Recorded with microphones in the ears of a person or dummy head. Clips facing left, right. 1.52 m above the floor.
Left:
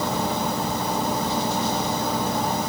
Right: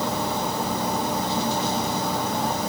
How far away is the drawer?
No drawer in this recording.